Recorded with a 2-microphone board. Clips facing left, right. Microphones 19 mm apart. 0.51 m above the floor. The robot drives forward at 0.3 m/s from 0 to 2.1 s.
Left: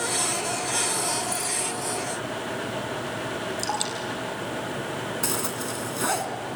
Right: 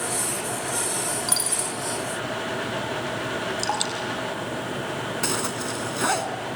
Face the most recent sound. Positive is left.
turn(degrees=-15)  # may be behind; listen again after turning